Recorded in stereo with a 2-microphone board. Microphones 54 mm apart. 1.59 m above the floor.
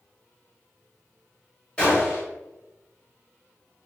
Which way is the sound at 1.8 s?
15° left (ahead or behind).